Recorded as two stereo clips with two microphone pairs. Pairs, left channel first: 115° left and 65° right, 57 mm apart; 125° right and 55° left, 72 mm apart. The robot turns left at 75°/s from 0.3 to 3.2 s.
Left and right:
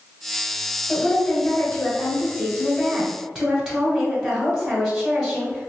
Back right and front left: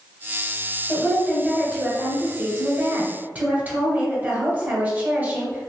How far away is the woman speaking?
About 1.0 m.